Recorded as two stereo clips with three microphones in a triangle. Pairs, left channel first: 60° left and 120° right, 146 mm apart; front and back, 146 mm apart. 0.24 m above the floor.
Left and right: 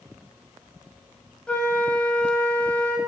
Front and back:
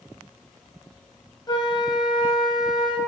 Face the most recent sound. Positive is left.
turn(degrees=-15)